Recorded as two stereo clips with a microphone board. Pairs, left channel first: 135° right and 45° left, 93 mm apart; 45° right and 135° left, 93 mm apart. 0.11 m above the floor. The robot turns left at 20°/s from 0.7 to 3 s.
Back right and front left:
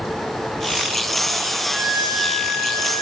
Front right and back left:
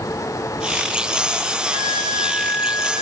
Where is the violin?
65° right, 7.5 m; by 3.0 s 90° right, 7.5 m.